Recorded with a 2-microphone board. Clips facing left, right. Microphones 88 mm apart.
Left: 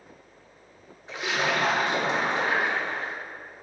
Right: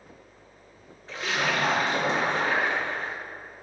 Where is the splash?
15° left (ahead or behind), 1.3 m.